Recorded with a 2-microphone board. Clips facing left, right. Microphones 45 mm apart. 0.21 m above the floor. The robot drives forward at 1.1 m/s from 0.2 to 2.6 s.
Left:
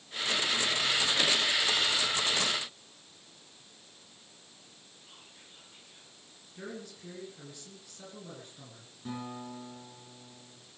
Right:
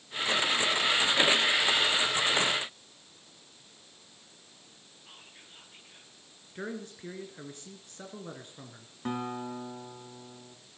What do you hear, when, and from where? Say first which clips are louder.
5.1 s whispering: right 4 dB; 35° right (ahead or behind), 4 m
6.5 s a man speaking: right 4 dB; 40° right (ahead or behind), 2 m
9.1 s a guitar: right 6 dB; 55° right (ahead or behind), 2.5 m